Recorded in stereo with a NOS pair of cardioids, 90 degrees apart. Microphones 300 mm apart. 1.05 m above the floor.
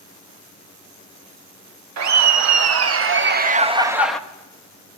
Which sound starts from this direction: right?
Laughter, at 2.0 s.